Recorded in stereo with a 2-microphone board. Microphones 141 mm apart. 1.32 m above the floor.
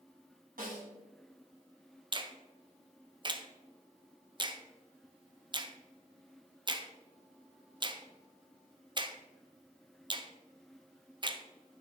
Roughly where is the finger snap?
Right.